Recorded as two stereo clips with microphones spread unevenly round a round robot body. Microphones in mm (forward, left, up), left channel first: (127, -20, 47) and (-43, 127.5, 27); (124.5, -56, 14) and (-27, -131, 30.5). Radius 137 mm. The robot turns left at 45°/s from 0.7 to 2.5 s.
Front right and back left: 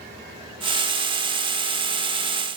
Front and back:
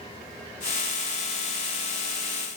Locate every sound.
Only background noise.